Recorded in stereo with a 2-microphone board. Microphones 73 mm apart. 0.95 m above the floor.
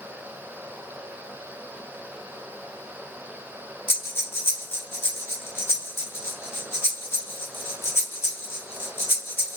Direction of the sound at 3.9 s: 30° left (ahead or behind).